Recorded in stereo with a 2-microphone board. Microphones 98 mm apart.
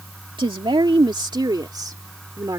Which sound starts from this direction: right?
A woman speaking, at 0.4 s.